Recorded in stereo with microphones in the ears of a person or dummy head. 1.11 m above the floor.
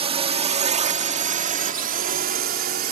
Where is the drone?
30° right (ahead or behind); by 2.9 s 55° right (ahead or behind).